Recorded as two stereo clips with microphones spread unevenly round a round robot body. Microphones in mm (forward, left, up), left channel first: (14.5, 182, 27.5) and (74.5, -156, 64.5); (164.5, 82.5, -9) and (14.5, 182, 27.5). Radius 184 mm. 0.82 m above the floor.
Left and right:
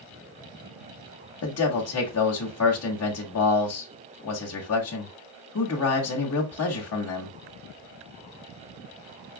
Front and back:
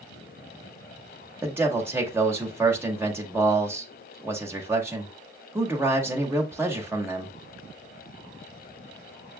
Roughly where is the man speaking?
Ahead left.